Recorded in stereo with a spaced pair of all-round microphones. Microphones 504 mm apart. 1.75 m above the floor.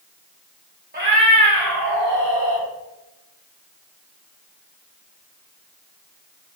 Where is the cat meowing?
20° right (ahead or behind), 1.1 m; by 2.6 s 55° right (ahead or behind), 2.5 m.